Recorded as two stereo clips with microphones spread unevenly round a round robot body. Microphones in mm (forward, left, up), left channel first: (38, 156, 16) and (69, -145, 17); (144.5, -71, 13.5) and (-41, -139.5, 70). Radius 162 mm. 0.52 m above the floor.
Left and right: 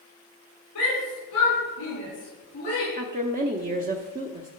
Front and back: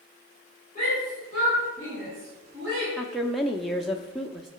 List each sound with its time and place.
0.8 s a shout: 140° left, 5.5 m; by 2.9 s 160° left, 5.5 m
3.0 s a woman speaking: 45° right, 0.8 m